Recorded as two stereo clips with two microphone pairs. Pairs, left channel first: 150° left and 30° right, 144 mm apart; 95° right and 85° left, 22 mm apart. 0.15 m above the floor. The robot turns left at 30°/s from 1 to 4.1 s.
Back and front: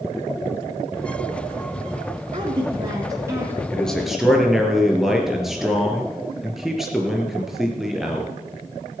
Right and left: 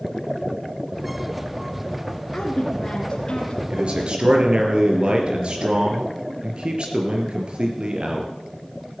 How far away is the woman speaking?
About 2 m.